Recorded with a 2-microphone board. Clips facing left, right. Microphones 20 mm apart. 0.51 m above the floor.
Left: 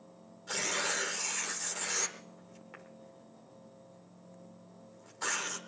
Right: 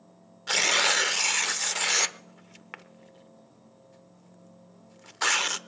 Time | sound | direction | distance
0.5 | tearing paper | 55° right (ahead or behind) | 0.9 m